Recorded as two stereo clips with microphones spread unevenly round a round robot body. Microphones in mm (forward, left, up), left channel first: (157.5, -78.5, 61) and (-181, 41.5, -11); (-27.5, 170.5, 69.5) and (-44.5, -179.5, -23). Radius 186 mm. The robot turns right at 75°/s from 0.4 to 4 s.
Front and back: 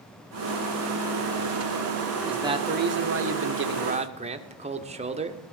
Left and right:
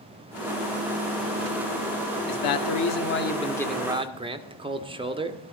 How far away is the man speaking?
About 1.6 m.